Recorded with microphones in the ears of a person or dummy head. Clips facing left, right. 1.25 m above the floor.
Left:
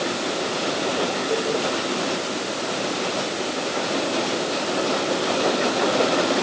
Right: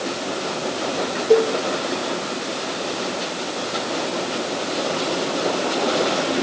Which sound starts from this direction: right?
A cowbell, at 1.3 s.